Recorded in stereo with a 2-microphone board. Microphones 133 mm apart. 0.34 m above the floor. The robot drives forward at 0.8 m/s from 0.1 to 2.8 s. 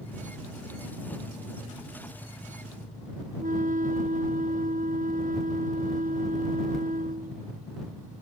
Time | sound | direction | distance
3.4 | a flute | 70° right (ahead or behind) | ?